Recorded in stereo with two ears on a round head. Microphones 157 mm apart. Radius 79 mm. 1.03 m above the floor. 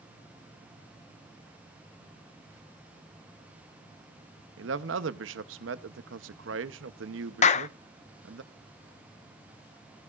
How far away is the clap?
About 0.6 m.